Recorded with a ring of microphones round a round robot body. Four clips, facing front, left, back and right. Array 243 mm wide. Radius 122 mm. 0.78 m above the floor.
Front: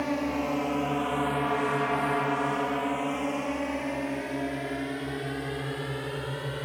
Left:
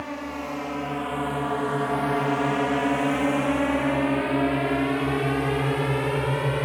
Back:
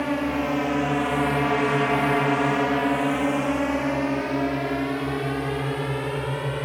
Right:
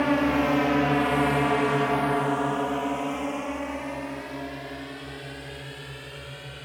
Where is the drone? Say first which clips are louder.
Right 10 dB, back 4 dB; 105° right; by 6.7 s 110° left.